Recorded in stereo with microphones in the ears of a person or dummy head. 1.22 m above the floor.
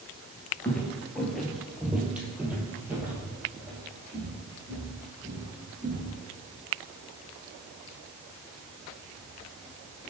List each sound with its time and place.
0.6 s footsteps: 10° left (ahead or behind), 1.3 m; by 6.2 s 20° right (ahead or behind), 4.5 m